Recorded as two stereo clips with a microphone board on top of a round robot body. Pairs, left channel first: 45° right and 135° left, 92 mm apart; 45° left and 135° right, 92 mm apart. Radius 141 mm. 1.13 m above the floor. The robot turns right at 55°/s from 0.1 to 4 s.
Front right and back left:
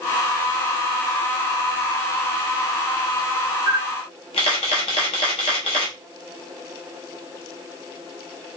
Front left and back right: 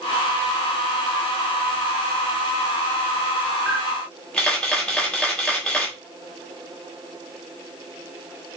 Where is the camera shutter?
55° right, 1.3 m; by 6.0 s 35° right, 1.3 m.